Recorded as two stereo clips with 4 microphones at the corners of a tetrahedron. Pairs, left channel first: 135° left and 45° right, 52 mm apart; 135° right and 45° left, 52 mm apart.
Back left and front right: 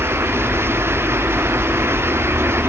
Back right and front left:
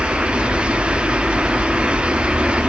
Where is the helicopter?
65° right.